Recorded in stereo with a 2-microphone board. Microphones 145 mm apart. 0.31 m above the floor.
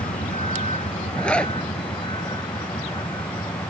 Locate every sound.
0.0 s a vehicle: 55° left (ahead or behind); by 3.7 s 25° left (ahead or behind)
1.2 s a zipper: 5° left (ahead or behind)